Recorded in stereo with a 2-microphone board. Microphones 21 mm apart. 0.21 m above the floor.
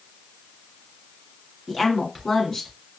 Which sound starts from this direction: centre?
A woman speaking, at 1.7 s.